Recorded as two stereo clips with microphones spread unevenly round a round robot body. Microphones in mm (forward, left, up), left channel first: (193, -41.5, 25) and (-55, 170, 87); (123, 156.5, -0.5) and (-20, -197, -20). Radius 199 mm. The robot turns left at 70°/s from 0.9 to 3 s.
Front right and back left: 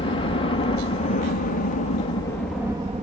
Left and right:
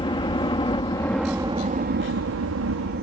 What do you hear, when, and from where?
0.0 s a helicopter: straight ahead; by 3.0 s 150° right